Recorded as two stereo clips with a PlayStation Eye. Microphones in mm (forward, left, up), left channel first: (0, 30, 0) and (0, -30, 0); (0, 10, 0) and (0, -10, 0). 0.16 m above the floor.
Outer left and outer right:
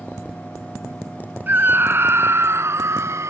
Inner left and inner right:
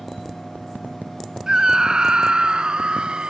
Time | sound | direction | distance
1.5 | a scream | 35° right (ahead or behind) | ?